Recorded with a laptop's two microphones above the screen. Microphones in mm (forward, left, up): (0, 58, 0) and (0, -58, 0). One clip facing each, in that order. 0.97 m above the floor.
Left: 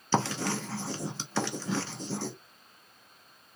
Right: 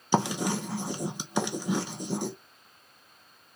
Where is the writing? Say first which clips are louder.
Right 2 dB; 15° right (ahead or behind), 0.8 m.